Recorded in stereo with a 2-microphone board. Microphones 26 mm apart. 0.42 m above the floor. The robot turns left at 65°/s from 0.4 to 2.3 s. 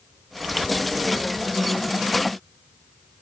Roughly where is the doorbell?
I don't hear a doorbell.